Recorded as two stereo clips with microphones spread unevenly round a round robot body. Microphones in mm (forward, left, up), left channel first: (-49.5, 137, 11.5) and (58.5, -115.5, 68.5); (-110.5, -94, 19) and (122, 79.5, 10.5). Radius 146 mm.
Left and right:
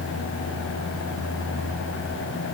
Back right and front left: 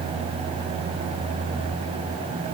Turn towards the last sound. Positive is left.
No sound to turn to.